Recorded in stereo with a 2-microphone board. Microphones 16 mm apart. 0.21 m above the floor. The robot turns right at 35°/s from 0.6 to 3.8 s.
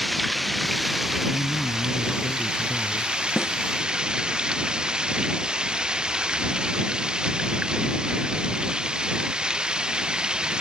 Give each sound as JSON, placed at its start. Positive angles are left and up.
{"t": 0.0, "sound": "running water", "azimuth_deg": -175}
{"t": 1.3, "sound": "a man speaking", "azimuth_deg": 160}
{"t": 3.4, "sound": "a snare drum", "side_deg": 15}